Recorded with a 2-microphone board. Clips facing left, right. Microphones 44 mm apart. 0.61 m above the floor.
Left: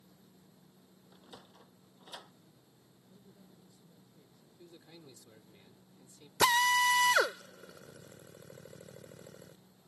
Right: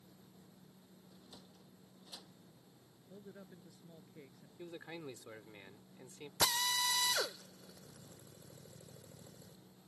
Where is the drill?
60° left (ahead or behind).